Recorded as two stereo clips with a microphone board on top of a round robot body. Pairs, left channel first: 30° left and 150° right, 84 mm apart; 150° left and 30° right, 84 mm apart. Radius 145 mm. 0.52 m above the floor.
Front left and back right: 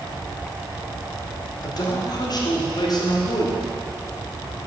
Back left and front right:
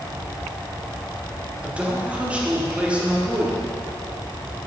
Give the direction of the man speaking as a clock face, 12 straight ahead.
11 o'clock.